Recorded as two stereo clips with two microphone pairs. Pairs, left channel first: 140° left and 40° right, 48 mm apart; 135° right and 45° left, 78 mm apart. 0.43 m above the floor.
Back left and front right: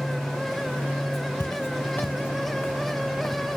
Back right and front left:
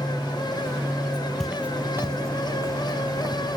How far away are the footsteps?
About 0.5 m.